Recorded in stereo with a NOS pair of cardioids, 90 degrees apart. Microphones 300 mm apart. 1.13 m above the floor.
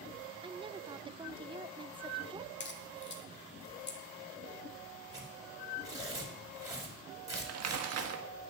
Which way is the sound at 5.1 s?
10° right.